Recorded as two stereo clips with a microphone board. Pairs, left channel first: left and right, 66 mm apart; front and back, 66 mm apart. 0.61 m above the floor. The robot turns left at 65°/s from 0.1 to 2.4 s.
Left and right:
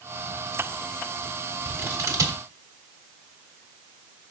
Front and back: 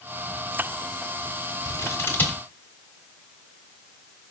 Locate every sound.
1.6 s scissors: 25° right, 1.4 m; by 2.4 s 75° right, 1.4 m